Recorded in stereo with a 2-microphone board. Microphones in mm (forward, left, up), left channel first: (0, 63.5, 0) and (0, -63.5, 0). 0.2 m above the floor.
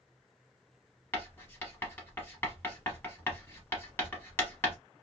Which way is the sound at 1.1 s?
20° left (ahead or behind).